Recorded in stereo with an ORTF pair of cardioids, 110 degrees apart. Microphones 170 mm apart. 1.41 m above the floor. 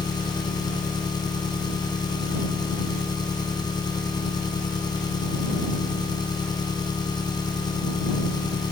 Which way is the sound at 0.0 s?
25° left.